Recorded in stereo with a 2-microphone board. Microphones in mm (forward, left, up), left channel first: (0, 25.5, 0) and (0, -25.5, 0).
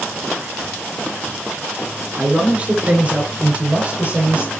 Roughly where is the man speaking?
Right.